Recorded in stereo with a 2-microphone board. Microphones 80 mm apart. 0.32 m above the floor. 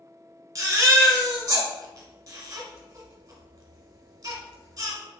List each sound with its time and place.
0.6 s a baby crying: 40° right (ahead or behind), 1.1 m